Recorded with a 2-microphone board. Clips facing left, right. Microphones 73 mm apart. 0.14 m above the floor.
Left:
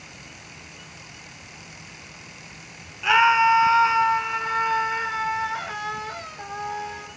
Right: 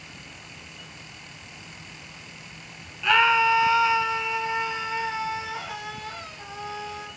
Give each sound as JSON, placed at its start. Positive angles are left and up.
{"t": 3.0, "sound": "a scream", "side_deg": 10, "distance_m": 1.2}